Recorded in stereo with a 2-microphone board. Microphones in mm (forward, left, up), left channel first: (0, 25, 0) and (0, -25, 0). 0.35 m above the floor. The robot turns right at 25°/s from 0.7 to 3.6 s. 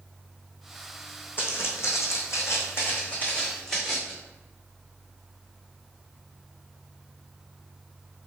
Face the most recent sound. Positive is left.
turn(degrees=5)  # may be behind; listen again after turning